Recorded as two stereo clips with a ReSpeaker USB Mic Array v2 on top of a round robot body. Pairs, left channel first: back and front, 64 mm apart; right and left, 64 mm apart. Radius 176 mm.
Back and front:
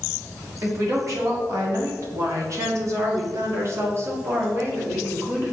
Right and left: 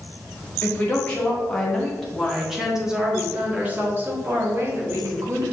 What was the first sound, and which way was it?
A woman speaking, 30° right.